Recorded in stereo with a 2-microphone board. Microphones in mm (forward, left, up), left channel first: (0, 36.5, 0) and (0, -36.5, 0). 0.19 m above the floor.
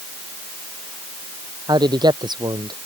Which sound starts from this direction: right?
A man speaking, at 1.7 s.